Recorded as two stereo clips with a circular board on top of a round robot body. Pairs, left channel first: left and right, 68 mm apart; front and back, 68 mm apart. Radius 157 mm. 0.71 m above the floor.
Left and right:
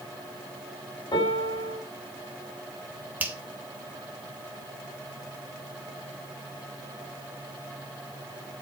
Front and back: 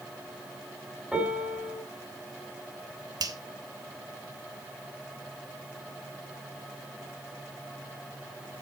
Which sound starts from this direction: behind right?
A finger snap, at 3.2 s.